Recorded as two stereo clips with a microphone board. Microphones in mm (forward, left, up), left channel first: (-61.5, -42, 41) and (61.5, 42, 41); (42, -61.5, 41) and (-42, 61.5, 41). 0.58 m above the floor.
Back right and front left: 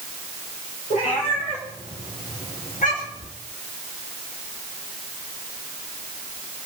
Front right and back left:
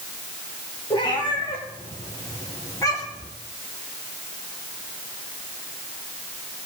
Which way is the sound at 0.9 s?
110° right.